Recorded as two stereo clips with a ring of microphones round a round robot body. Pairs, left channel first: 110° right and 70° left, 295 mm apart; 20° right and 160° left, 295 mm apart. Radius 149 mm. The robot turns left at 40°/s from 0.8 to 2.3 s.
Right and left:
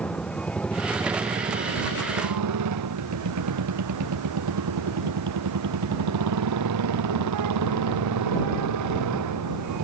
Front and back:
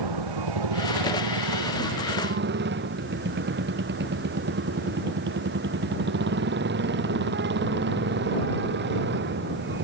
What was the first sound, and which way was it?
A motorcycle, 160° left.